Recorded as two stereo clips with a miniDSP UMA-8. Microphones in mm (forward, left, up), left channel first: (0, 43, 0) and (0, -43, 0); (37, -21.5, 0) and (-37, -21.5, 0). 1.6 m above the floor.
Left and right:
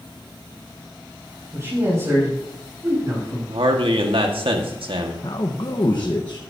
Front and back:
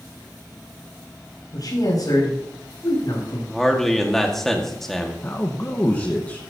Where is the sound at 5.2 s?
60° left, 1.4 m.